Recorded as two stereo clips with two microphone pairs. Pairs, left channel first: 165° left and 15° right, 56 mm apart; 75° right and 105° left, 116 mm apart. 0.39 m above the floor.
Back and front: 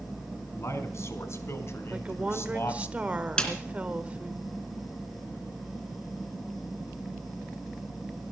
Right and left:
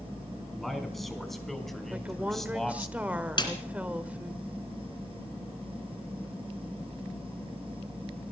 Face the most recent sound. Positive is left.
turn(degrees=-120)